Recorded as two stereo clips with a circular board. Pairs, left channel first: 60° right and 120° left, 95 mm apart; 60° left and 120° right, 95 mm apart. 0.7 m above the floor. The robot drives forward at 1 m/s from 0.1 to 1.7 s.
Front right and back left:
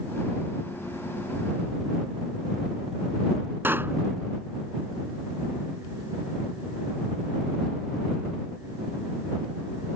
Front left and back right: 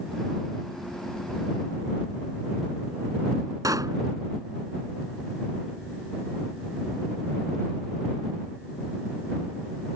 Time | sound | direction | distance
3.6 | a pop | 170° right | ?